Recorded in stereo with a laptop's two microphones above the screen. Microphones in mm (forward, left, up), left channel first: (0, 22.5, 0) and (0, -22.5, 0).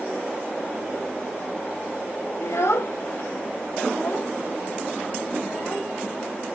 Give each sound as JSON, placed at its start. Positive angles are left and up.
{"t": 2.4, "sound": "a child speaking", "side_deg": 80, "distance_m": 0.7}